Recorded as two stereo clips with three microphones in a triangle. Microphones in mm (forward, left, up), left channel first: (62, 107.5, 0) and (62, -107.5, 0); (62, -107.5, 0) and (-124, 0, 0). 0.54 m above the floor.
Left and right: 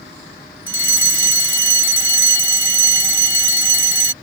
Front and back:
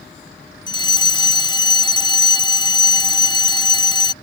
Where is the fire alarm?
100° right.